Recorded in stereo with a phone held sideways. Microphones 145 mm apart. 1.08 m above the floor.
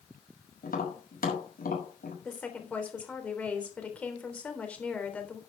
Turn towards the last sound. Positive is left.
turn(degrees=10)  # may be behind; listen again after turning